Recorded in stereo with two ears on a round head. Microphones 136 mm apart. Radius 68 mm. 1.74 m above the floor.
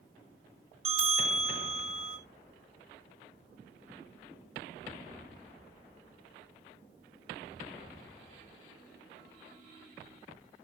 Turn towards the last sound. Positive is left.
turn(degrees=-45)  # may be behind; listen again after turning